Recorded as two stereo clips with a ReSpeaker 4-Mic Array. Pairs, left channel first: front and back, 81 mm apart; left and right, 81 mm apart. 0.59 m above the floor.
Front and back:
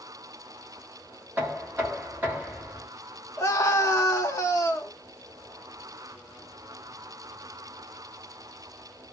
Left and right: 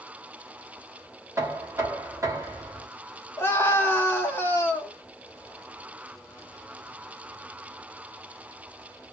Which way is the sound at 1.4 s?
125° right.